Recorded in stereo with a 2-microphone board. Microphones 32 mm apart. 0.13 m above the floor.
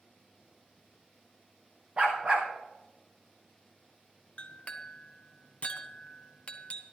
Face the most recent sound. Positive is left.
turn(degrees=35)  # may be behind; listen again after turning